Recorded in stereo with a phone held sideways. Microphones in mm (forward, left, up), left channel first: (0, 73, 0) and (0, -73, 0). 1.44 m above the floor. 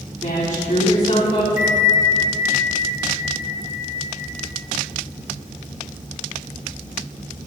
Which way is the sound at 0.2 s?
70° left (ahead or behind).